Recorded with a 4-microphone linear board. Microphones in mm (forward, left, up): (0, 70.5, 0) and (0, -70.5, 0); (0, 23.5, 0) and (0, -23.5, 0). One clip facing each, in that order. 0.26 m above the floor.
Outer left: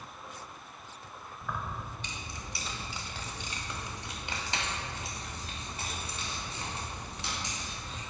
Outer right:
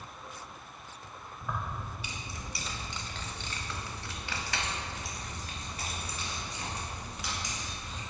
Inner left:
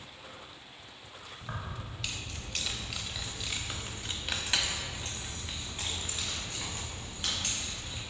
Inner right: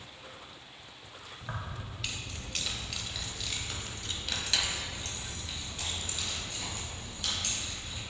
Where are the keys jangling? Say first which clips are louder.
Outer right 1 dB, even; 15° right (ahead or behind), 1.1 m; by 8.0 s 30° left (ahead or behind), 2.5 m.